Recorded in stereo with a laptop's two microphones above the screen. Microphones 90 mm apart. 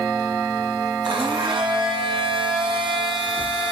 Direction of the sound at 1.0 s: 70° right (ahead or behind).